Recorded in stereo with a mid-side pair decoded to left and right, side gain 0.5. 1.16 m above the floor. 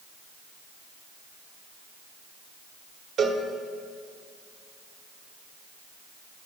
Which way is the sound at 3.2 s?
65° right.